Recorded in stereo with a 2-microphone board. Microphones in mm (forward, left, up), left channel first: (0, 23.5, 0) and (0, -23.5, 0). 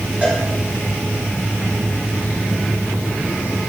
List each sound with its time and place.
0.2 s a cowbell: 30° right (ahead or behind), 4.5 m